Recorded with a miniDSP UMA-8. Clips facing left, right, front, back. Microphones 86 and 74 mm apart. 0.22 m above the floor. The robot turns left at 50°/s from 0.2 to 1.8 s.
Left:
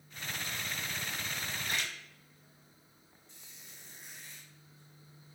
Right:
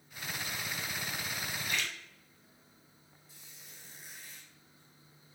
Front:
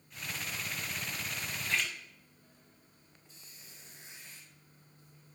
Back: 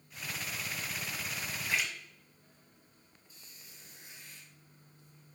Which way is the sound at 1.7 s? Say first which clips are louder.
Right 1 dB, even; 110° left.